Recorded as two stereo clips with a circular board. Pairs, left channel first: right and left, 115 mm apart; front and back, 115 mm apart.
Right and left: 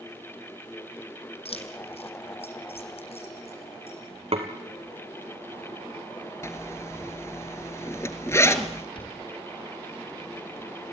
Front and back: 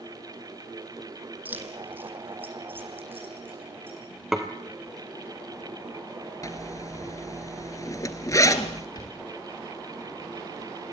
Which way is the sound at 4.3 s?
95° left.